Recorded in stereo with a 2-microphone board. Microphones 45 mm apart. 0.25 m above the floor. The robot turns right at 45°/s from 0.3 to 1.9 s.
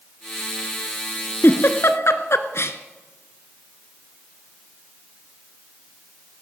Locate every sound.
1.4 s a giggle: 55° left (ahead or behind), 0.9 m; by 2.8 s 75° left (ahead or behind), 0.9 m